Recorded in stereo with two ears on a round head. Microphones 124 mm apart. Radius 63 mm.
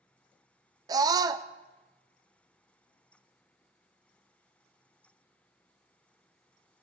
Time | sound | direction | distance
0.9 | a scream | 25° right (ahead or behind) | 0.5 m